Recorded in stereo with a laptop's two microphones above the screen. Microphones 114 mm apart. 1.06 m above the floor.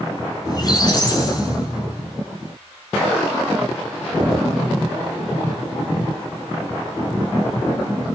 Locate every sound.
0.5 s a squeak: 35° left (ahead or behind), 6.5 m